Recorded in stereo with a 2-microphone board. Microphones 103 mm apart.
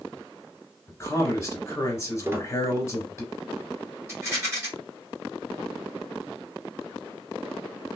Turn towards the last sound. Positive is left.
turn(degrees=-30)  # may be behind; listen again after turning